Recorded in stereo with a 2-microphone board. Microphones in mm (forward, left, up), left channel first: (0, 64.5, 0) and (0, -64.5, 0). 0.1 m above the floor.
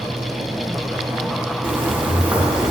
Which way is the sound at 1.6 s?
15° right (ahead or behind).